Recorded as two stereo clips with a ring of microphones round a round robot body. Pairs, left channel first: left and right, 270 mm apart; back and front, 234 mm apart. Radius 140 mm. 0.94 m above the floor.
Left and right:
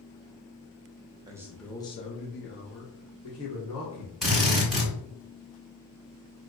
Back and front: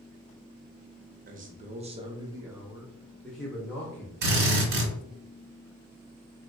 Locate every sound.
1.3 s a man speaking: 25° right, 0.7 m; by 4.1 s 100° left, 1.4 m
4.2 s a drill: straight ahead, 1.1 m